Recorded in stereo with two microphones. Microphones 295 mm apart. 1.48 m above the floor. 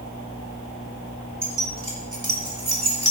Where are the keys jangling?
80° right, 4 m; by 3.1 s 50° right (ahead or behind), 3.5 m.